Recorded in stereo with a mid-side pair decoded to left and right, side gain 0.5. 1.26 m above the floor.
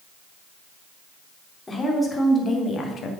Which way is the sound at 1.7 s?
25° left.